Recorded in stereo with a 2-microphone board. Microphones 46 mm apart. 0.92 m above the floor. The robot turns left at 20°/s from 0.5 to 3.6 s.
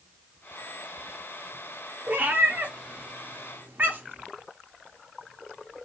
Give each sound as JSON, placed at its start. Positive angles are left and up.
{"t": 2.1, "sound": "a cat meowing", "side_deg": -35, "distance_m": 0.5}